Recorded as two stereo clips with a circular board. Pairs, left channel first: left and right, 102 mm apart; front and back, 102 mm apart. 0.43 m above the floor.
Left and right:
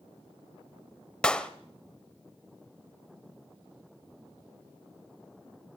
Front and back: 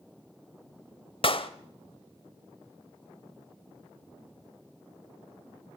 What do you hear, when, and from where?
1.2 s a clap: 10° left, 1.3 m